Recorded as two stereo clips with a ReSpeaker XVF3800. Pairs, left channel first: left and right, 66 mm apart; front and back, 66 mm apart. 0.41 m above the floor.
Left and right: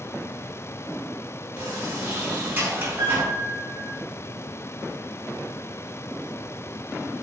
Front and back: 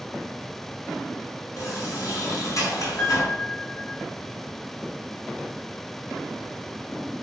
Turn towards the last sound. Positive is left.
turn(degrees=-65)